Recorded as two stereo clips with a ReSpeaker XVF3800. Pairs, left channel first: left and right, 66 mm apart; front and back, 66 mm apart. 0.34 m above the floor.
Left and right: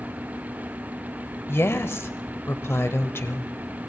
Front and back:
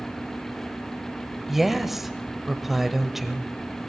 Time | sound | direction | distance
1.5 | a woman speaking | 100° left | 1.1 m